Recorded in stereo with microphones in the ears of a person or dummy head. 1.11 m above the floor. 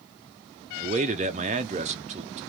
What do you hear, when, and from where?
0.8 s a man speaking: 30° right (ahead or behind), 0.6 m